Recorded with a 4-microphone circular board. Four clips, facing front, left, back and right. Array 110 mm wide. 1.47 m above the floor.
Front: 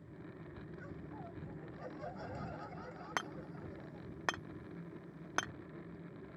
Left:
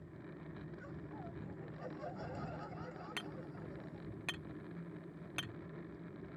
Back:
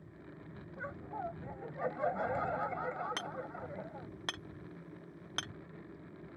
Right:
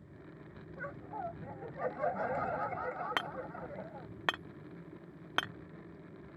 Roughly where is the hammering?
Ahead right.